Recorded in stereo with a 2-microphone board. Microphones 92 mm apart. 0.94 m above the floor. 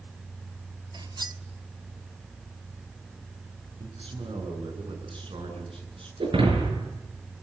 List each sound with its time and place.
0.9 s cutlery clinking: 50° right (ahead or behind), 1.3 m
3.8 s a man speaking: 70° right (ahead or behind), 10 m
6.2 s breaking glass: 75° right (ahead or behind), 7 m